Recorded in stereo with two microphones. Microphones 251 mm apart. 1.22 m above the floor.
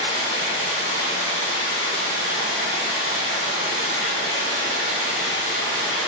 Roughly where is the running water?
Left.